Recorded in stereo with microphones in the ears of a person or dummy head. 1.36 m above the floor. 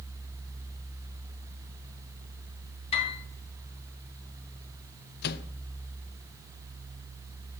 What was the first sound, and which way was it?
A piano, 35° left (ahead or behind).